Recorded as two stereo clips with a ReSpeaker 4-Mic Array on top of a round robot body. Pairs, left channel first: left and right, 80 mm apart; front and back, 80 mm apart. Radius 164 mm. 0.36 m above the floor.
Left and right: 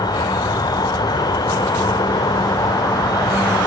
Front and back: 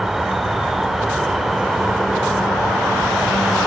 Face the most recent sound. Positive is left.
turn(degrees=95)